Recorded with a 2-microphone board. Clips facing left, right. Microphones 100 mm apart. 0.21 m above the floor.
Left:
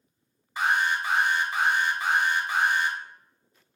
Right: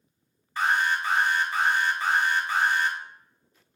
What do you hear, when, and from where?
0.6 s an alarm: 15° left (ahead or behind), 1.4 m